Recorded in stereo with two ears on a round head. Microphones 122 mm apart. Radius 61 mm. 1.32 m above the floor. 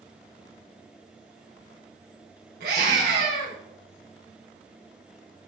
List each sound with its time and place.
2.6 s a scream: 80° right, 5 m